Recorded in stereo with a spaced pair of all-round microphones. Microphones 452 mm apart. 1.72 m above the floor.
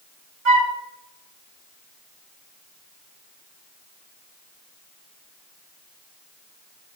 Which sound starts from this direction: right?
A flute, at 0.5 s.